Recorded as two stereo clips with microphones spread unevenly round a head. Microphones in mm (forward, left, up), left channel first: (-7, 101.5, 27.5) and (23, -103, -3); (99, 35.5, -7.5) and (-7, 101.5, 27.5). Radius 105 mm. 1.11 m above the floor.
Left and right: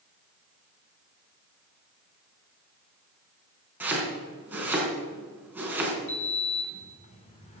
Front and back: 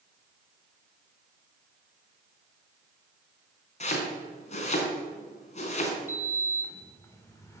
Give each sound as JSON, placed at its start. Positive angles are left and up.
{"t": 3.8, "sound": "chopping", "azimuth_deg": 0, "distance_m": 3.5}
{"t": 6.1, "sound": "a sliding door", "azimuth_deg": 35, "distance_m": 2.5}